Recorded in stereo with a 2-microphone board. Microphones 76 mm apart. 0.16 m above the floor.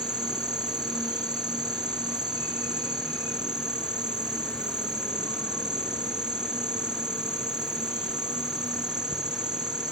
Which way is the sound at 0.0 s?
60° right (ahead or behind).